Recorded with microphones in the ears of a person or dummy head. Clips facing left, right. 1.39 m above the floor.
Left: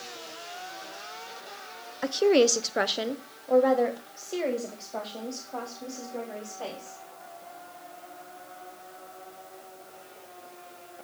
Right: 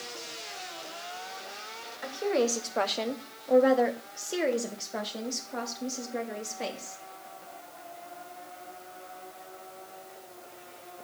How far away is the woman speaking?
About 0.8 m.